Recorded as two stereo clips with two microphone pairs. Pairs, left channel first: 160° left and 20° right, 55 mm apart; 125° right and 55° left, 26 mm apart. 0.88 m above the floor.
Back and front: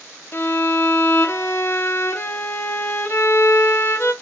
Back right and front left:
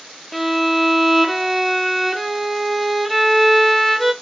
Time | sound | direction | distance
0.3 | a violin | 145° left | 0.7 m